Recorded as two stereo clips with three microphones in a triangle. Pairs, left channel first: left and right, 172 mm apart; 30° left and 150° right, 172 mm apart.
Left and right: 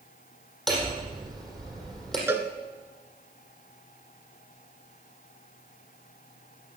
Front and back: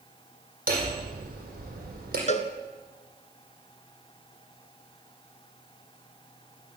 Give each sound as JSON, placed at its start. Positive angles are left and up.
{"t": 0.7, "sound": "hammering", "azimuth_deg": 180, "distance_m": 5.0}
{"t": 2.3, "sound": "a cowbell", "azimuth_deg": -15, "distance_m": 1.2}